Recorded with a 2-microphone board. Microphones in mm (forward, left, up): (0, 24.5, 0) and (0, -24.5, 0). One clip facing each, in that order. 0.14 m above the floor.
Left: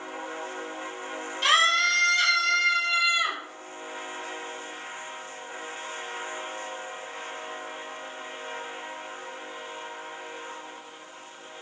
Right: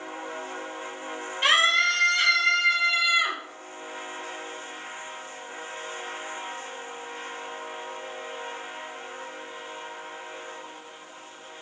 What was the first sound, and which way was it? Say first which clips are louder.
A scream: right 1 dB; 30° right (ahead or behind).